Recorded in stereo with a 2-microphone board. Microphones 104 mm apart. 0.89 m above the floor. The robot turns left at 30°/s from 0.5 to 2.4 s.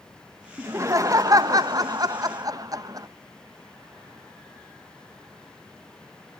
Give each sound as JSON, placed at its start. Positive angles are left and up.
{"t": 0.6, "sound": "laughter", "azimuth_deg": -50, "distance_m": 0.9}